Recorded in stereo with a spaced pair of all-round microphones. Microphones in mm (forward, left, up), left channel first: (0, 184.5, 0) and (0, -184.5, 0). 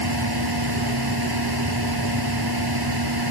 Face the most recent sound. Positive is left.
turn(degrees=-85)